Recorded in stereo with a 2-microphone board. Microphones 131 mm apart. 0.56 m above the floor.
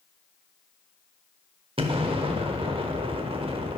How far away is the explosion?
About 0.7 m.